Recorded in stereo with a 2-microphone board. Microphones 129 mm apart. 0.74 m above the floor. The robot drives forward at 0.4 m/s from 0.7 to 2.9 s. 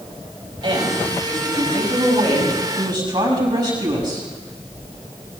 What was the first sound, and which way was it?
A woman speaking, 40° right (ahead or behind).